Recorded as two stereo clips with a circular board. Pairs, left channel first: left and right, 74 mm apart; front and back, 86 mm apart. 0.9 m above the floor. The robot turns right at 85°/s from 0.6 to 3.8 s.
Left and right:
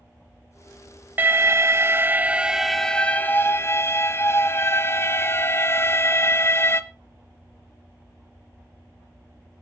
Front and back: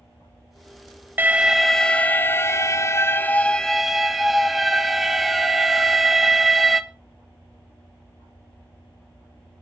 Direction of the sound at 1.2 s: 130° right.